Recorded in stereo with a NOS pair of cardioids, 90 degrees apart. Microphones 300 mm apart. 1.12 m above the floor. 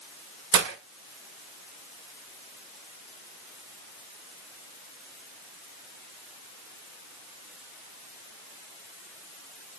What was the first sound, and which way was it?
Breaking glass, 65° right.